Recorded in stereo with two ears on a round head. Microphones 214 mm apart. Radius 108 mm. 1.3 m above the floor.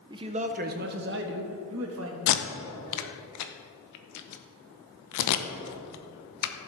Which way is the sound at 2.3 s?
85° left.